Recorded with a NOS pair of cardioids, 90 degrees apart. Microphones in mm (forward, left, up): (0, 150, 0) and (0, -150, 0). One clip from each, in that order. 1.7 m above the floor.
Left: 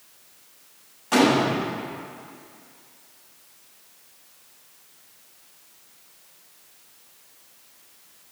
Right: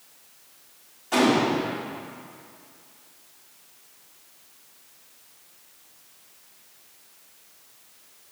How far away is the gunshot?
About 3 m.